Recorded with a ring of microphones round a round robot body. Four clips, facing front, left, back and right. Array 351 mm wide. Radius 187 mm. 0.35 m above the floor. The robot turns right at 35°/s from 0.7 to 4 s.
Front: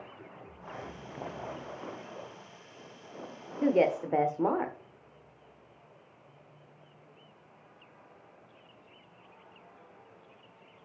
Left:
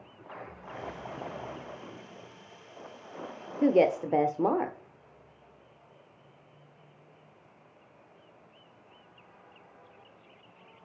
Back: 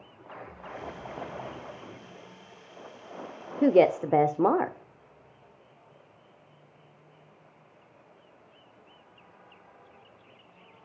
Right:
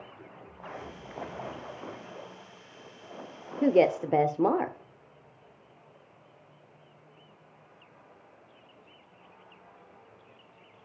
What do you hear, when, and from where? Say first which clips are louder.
3.6 s a woman speaking: right 1 dB, back 5 dB; 175° right, 1.4 m; by 4.8 s 165° right, 1.4 m